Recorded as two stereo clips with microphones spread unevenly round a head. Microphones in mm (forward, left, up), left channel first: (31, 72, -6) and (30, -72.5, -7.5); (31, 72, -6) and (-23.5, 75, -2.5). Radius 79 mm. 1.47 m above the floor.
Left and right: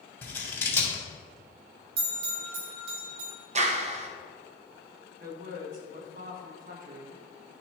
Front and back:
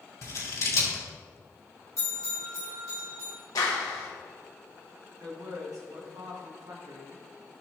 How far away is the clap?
About 1.0 m.